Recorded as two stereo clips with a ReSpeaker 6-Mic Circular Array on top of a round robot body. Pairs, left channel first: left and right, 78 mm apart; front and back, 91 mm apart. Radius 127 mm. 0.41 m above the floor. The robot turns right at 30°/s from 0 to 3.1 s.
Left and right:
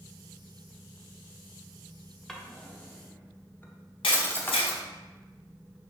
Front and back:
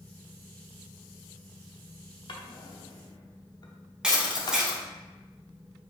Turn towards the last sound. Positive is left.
turn(degrees=100)